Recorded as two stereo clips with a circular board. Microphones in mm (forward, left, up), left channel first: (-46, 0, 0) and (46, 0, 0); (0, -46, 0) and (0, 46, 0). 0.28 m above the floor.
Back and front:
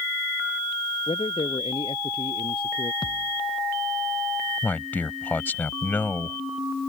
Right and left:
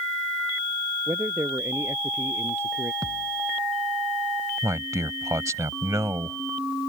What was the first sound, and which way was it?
A man speaking, 155° left.